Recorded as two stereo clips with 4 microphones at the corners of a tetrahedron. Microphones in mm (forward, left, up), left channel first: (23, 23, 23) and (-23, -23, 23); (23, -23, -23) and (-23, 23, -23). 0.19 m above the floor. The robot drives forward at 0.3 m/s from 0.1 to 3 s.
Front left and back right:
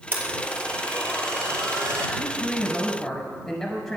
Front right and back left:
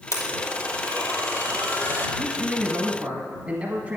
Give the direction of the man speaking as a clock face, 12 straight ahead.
9 o'clock.